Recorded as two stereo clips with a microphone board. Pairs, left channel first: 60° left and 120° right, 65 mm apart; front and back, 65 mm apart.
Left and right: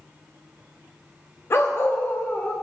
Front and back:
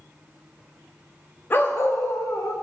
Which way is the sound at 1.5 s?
40° left.